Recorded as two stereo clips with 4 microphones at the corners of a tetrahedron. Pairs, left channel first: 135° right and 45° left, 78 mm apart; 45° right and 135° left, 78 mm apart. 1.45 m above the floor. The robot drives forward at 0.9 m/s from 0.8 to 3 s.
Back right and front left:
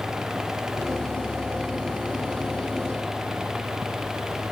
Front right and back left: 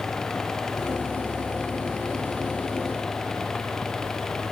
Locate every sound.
Only background noise.